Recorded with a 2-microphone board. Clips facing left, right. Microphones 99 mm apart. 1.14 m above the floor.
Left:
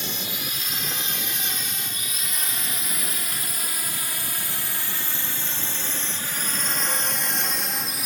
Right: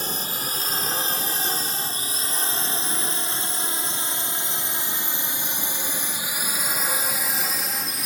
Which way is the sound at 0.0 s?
40° right (ahead or behind).